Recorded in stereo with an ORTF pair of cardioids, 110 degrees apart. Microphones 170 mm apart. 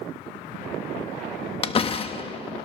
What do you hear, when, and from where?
1.6 s a door slam: 30° left, 1.2 m